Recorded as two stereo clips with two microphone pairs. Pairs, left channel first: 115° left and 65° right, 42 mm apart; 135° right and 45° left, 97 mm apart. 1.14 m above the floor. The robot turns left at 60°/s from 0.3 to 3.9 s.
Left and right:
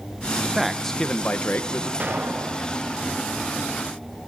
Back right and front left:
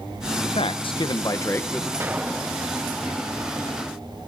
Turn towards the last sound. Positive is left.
turn(degrees=-135)